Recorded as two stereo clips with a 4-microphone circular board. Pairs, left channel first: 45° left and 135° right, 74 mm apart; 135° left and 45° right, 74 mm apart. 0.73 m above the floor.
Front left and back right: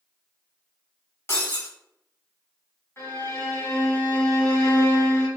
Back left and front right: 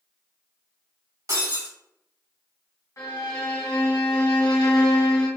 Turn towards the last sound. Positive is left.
turn(degrees=95)